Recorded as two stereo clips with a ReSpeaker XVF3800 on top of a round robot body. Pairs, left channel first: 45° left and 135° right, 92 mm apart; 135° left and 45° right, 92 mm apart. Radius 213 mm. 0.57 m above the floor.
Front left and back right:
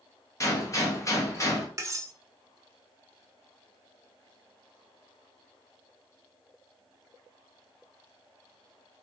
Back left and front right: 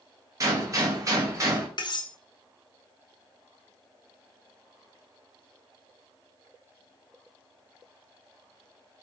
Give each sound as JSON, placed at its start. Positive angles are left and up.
{"t": 0.4, "sound": "a gunshot", "azimuth_deg": 0, "distance_m": 1.7}
{"t": 1.8, "sound": "cutlery clinking", "azimuth_deg": 170, "distance_m": 0.8}